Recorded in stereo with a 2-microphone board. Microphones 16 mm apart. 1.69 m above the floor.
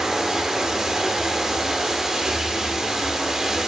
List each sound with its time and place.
0.0 s running water: 35° right (ahead or behind), 1.5 m